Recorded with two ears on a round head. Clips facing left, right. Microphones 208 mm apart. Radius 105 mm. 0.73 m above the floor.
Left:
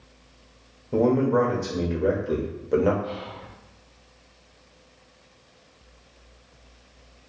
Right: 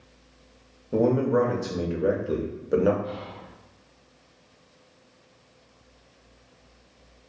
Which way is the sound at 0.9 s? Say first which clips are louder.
Left 1 dB; 5° right (ahead or behind).